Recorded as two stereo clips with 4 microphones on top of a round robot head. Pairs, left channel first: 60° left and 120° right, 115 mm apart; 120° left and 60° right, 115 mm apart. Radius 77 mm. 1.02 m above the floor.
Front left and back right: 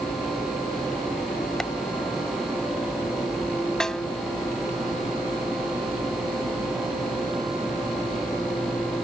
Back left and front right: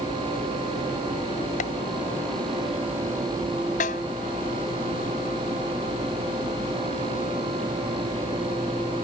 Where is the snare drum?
145° left.